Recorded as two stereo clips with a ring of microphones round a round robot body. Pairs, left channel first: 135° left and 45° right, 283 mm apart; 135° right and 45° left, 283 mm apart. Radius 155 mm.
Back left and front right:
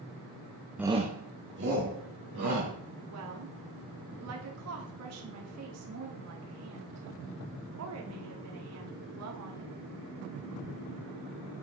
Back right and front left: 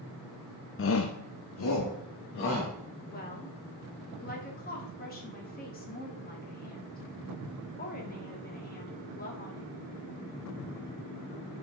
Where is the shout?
130° right, 0.6 m; by 2.7 s 90° right, 3.5 m.